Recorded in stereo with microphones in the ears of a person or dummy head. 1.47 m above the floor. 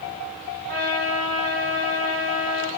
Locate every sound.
0.7 s a trumpet: 35° right (ahead or behind), 1.5 m